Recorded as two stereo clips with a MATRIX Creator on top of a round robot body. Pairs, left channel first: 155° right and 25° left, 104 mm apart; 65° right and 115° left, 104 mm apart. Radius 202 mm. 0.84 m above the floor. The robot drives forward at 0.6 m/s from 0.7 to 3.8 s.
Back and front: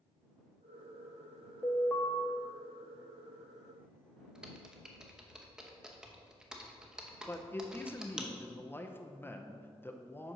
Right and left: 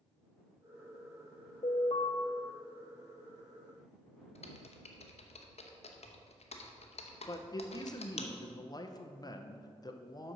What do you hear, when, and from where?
1.6 s an alarm: 80° right, 1.3 m; by 2.1 s 95° right, 1.3 m
4.3 s typing on a keyboard: 60° right, 1.0 m
7.3 s a man speaking: 95° right, 1.0 m